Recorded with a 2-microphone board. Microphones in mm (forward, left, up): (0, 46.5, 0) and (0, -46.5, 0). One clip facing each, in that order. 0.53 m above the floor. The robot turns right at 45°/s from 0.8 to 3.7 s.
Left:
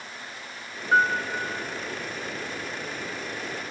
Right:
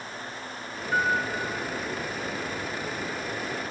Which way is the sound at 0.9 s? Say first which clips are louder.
Left 4 dB; 70° left (ahead or behind).